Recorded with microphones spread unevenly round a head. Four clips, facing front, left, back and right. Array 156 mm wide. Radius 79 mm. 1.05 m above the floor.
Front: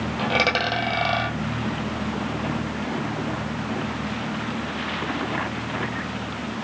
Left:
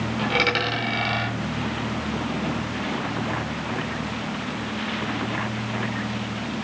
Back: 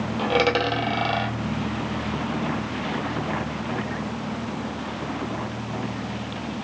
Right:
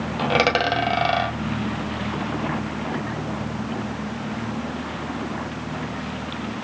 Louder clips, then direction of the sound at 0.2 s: Right 5 dB, back 2 dB; 95° right.